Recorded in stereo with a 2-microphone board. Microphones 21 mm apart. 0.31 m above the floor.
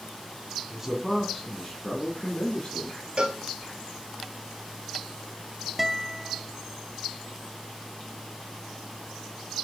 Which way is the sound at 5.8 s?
10° right (ahead or behind).